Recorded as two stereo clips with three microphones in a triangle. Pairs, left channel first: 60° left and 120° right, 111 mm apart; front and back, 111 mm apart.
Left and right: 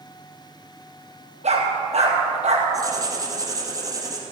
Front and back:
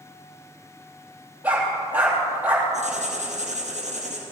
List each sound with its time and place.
1.4 s a dog barking: 105° right, 3.5 m
2.7 s writing: straight behind, 2.5 m